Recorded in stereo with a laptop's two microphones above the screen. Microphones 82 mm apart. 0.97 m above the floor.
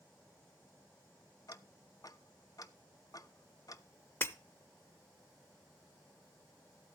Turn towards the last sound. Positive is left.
turn(degrees=25)  # may be behind; listen again after turning